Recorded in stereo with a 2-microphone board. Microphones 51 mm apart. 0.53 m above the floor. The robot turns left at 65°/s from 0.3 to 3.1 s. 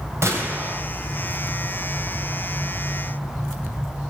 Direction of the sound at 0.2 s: 110° right.